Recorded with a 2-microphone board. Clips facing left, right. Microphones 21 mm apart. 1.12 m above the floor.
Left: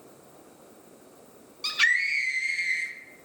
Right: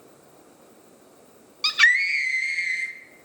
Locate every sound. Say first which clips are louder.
1.6 s a scream: right 5 dB; 30° right (ahead or behind), 1.1 m; by 2.9 s 5° right (ahead or behind), 2 m